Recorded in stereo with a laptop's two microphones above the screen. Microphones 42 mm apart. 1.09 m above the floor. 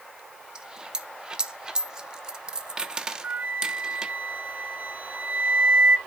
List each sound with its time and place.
0.6 s a dropped coin: 15° right (ahead or behind), 0.7 m
3.2 s a flute: 40° right (ahead or behind), 0.5 m